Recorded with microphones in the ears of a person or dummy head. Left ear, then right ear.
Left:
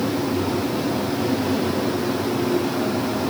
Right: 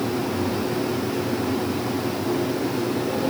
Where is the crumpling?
I don't hear crumpling.